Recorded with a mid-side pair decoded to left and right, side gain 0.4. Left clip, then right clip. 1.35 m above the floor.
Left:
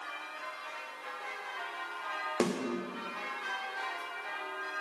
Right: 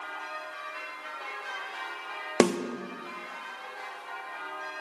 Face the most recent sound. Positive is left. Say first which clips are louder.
# right 9 dB
turn(degrees=-70)